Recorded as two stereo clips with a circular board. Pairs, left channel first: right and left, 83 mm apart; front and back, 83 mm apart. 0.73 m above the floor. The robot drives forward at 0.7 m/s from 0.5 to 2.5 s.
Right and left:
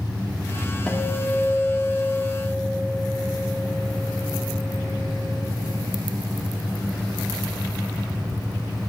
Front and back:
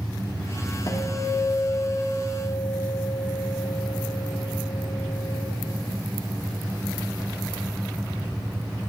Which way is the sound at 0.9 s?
15° right.